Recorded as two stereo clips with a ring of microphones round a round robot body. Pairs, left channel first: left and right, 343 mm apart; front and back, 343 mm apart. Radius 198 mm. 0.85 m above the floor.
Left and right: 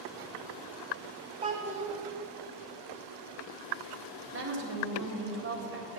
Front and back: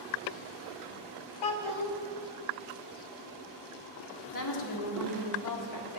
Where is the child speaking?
15° right, 1.5 m.